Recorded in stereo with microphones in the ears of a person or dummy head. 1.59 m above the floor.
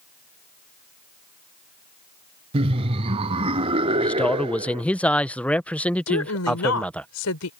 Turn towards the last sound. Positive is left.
turn(degrees=85)